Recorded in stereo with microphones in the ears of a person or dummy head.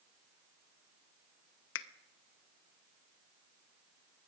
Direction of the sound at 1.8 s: 80° left.